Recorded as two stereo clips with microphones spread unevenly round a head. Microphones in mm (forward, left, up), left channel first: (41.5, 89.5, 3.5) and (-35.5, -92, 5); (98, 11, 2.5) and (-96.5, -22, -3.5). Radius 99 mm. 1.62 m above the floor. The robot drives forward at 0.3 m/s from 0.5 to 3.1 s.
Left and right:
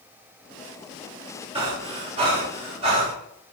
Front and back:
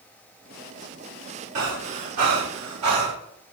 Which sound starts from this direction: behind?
Breathing, at 1.6 s.